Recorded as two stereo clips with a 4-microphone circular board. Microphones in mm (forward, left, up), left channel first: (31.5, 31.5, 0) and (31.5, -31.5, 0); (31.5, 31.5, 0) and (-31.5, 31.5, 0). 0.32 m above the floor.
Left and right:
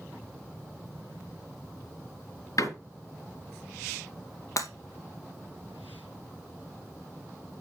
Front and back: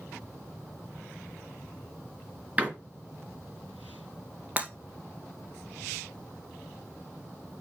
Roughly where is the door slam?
Behind left.